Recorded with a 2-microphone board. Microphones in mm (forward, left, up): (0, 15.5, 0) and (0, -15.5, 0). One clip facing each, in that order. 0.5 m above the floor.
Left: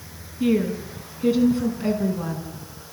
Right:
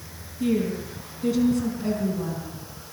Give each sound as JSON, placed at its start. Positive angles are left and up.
{"t": 0.4, "sound": "a woman speaking", "side_deg": 30, "distance_m": 4.5}